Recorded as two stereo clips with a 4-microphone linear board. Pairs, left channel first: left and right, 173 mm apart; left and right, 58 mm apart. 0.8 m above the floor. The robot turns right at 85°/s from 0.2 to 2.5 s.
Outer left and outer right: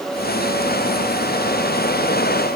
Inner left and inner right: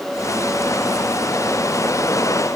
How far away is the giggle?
No giggle in this recording.